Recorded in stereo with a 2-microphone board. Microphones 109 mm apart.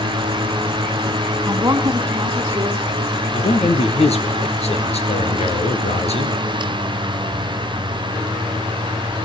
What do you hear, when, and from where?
1.5 s a woman speaking: 30° right (ahead or behind), 1.8 m; by 2.9 s 35° right (ahead or behind), 2.5 m
3.3 s a man speaking: 70° left (ahead or behind), 3.5 m